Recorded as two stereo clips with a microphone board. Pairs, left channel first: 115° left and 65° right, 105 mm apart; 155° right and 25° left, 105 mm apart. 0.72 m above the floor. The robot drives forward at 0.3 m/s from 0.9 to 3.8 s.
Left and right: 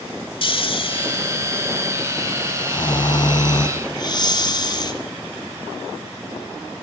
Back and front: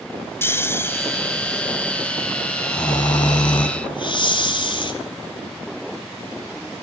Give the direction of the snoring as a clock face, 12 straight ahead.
7 o'clock.